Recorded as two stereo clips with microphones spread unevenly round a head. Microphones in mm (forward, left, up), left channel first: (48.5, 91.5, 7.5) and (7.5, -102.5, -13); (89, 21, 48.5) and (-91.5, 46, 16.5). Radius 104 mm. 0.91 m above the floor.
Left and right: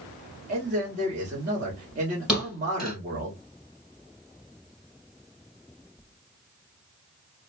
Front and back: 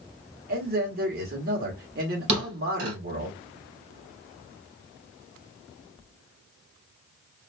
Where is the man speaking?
155° right, 1.7 m.